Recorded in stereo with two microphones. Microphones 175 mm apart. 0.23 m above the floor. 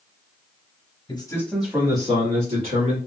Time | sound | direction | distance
1.1 | a man speaking | 30° left (ahead or behind) | 1.1 m